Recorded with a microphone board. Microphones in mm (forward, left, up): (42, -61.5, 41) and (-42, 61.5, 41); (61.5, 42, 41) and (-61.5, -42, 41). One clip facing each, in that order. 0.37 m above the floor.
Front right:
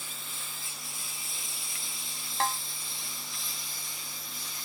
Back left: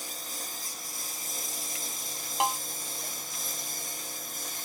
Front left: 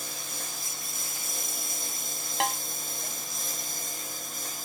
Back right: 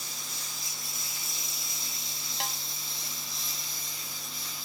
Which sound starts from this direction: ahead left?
A snare drum, at 2.4 s.